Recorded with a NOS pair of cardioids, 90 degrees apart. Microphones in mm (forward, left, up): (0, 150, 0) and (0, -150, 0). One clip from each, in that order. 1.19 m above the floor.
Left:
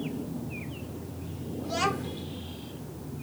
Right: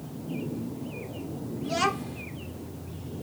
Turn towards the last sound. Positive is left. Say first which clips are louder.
# right 2 dB
turn(degrees=-10)